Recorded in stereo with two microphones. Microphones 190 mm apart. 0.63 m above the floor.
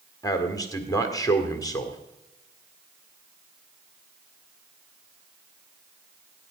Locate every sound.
0.2 s a man speaking: 15° left (ahead or behind), 1.8 m